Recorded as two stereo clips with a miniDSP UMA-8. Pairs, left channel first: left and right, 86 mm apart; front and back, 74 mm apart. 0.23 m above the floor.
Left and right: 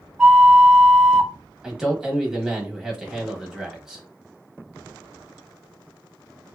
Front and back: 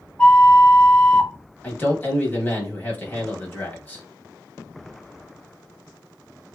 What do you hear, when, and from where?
0.2 s a flute: 15° right, 1.0 m
1.6 s a man speaking: 15° right, 1.0 m